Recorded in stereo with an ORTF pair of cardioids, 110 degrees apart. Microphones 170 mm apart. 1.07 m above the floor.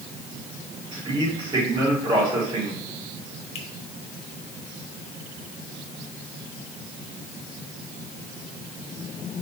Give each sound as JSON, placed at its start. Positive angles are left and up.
{"t": 0.9, "sound": "a man speaking", "azimuth_deg": -30, "distance_m": 5.0}
{"t": 3.5, "sound": "a finger snap", "azimuth_deg": 35, "distance_m": 2.0}